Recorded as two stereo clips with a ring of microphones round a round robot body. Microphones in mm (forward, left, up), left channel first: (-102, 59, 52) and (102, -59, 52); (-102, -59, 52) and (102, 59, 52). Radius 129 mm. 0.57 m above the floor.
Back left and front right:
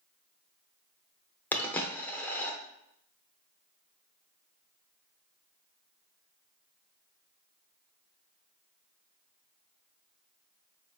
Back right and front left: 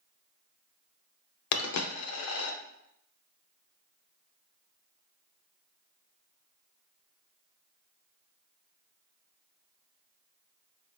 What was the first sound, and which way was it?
A dropped coin, 125° right.